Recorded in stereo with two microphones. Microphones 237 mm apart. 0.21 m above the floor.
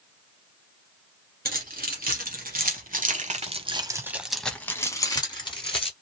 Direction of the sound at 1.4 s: 40° right (ahead or behind).